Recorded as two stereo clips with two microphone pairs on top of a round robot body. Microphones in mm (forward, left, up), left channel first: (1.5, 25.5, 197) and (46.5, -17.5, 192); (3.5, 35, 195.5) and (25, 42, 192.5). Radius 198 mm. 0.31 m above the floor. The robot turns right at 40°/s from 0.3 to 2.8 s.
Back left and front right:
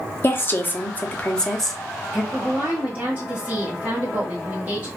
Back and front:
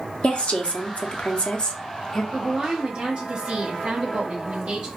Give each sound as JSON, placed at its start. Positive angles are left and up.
{"t": 0.2, "sound": "a woman speaking", "azimuth_deg": 170, "distance_m": 1.2}
{"t": 2.3, "sound": "a woman speaking", "azimuth_deg": -10, "distance_m": 1.7}